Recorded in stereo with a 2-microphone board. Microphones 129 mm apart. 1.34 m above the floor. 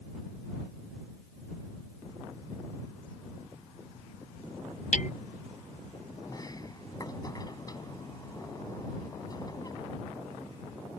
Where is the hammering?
70° left (ahead or behind).